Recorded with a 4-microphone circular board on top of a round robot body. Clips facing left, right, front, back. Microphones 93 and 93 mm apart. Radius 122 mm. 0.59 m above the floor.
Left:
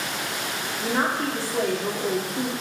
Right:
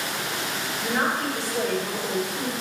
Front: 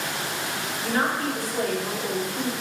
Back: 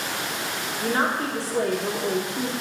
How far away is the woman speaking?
About 1.8 m.